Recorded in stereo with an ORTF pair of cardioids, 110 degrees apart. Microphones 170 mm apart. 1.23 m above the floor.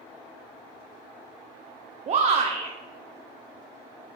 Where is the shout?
40° right, 0.7 m.